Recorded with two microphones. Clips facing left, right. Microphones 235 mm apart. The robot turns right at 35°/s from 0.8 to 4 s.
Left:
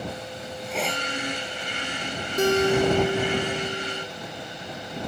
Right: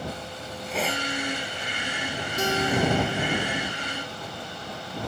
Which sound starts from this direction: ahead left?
A guitar, at 2.4 s.